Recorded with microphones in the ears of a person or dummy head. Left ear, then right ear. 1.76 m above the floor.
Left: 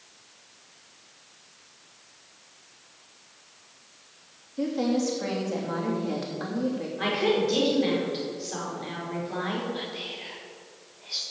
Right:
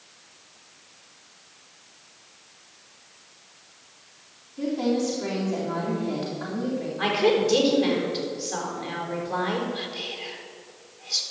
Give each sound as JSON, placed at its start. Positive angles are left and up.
{"t": 4.6, "sound": "a woman speaking", "side_deg": 50, "distance_m": 2.5}
{"t": 7.0, "sound": "a woman speaking", "side_deg": 15, "distance_m": 4.5}
{"t": 9.7, "sound": "whispering", "side_deg": 5, "distance_m": 2.0}